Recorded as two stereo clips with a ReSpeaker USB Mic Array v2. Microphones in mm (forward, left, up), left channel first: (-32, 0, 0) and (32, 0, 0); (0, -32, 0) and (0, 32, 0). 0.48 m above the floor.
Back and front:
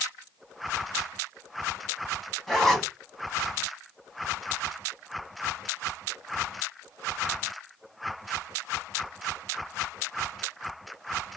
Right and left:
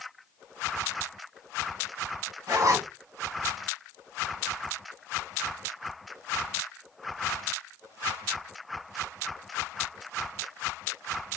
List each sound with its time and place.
2.5 s a zipper: 90° left, 1.2 m